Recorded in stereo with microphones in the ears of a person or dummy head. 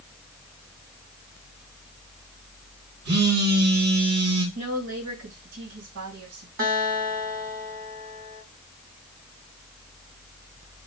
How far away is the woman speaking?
About 2 m.